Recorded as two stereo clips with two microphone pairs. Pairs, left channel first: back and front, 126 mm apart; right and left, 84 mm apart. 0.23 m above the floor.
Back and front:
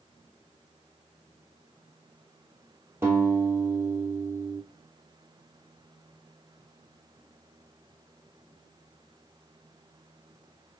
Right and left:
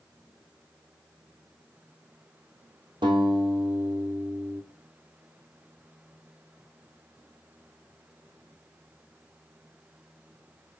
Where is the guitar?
70° left, 1.0 m.